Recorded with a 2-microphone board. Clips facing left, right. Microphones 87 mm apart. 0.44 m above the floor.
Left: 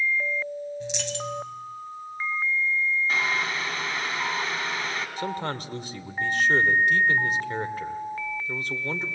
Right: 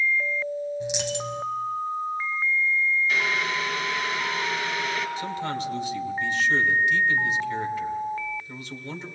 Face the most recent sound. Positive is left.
turn(degrees=45)  # may be behind; listen again after turning